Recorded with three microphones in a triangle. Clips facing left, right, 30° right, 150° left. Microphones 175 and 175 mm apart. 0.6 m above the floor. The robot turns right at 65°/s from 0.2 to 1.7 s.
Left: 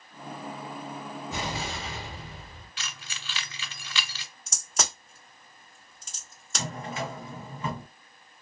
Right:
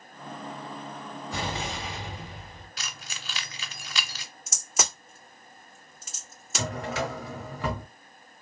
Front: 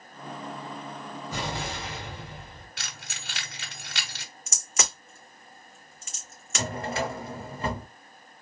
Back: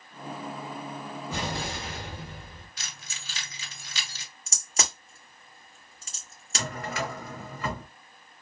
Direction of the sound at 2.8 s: 40° right.